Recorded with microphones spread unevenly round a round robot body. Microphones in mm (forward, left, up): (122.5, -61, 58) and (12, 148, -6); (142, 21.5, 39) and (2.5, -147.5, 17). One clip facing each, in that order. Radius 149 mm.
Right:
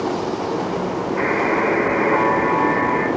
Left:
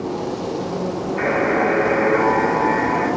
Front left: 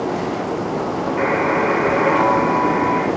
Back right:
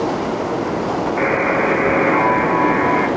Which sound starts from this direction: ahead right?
A buzzer, at 1.2 s.